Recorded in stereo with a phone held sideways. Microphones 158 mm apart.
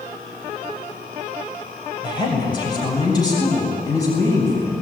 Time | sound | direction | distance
2.0 | a woman speaking | 30° left (ahead or behind) | 6.5 m